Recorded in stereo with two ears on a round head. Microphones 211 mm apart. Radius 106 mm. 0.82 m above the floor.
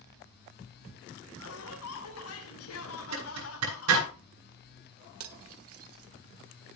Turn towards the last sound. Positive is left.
turn(degrees=-65)  # may be behind; listen again after turning